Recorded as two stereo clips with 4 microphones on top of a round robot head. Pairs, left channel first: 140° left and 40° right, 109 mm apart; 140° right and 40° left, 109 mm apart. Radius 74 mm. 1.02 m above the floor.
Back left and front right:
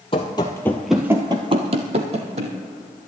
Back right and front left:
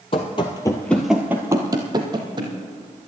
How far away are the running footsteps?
About 1.4 m.